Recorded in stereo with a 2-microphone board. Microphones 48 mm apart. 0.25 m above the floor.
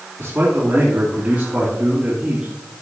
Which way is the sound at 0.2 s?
40° right (ahead or behind).